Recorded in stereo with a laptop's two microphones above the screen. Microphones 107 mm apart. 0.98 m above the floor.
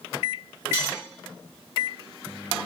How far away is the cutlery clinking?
About 1.8 m.